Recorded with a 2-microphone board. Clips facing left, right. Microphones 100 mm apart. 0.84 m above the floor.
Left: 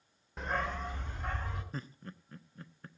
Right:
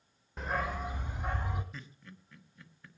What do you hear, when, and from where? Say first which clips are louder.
0.4 s a dog barking: right 1 dB; centre (ahead or behind), 1.1 m; by 1.6 s 20° right (ahead or behind), 2.5 m
1.7 s laughter: left 6 dB; 40° left (ahead or behind), 1.1 m